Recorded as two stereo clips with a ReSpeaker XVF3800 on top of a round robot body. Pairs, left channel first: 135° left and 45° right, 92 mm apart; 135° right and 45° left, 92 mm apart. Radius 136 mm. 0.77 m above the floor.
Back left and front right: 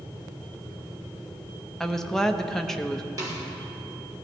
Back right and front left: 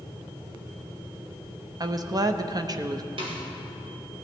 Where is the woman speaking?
55° left, 1.0 m.